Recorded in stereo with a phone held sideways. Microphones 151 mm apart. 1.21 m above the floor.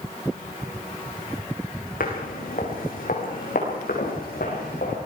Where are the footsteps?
75° left (ahead or behind), 5 m; by 5.0 s 80° left, 7 m.